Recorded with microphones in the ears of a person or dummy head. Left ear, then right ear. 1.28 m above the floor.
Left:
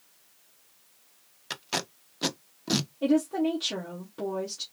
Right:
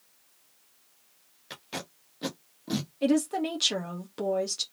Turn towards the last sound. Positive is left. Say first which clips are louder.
# even
turn(degrees=-50)  # may be behind; listen again after turning